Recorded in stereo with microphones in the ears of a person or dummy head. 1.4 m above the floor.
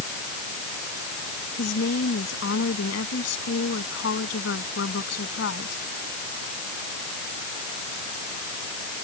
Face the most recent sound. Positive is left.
turn(degrees=75)  # may be behind; listen again after turning